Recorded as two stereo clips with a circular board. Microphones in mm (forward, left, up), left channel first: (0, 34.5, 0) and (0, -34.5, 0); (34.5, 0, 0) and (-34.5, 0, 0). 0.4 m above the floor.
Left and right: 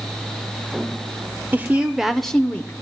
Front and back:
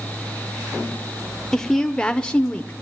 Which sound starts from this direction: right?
A woman speaking, at 1.5 s.